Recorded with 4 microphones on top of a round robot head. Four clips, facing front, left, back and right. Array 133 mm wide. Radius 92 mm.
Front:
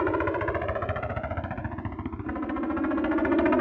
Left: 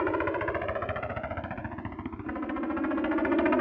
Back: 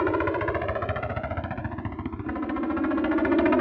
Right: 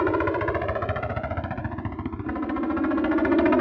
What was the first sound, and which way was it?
A helicopter, 115° right.